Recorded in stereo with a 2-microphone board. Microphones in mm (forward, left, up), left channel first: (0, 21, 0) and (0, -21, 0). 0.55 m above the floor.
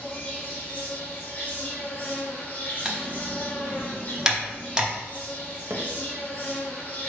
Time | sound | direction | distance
0.0 | an insect | 35° left (ahead or behind) | 1.3 m
2.9 | typing on a keyboard | 15° right (ahead or behind) | 0.6 m
5.7 | hammering | 65° right (ahead or behind) | 0.5 m